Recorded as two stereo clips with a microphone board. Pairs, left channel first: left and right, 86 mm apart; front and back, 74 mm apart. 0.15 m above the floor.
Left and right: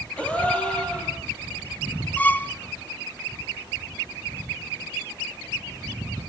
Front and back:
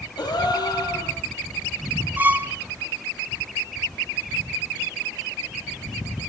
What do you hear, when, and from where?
0.2 s a gasp: 15° left, 5.5 m
2.2 s a violin: 145° left, 0.8 m